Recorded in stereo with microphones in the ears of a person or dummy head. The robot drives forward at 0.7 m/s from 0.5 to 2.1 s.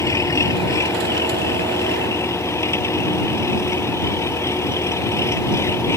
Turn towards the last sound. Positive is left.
turn(degrees=15)  # may be behind; listen again after turning